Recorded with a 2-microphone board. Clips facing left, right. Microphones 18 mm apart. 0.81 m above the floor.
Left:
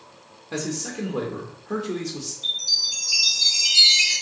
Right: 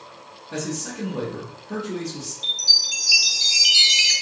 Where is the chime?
50° right (ahead or behind), 1.4 m.